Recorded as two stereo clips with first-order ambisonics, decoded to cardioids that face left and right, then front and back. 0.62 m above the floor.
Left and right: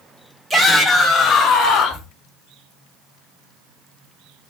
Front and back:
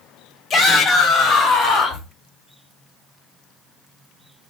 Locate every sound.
0.5 s a shout: 30° right, 0.7 m; by 2.1 s 55° left, 1.1 m